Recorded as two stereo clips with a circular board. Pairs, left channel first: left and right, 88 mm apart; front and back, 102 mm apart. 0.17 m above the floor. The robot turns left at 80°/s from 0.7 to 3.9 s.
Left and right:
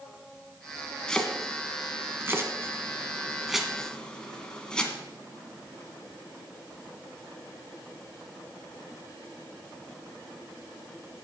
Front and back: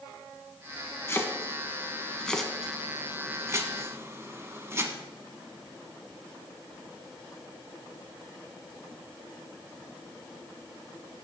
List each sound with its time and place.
1.1 s chopping: 25° left, 1.3 m; by 4.9 s 160° left, 1.3 m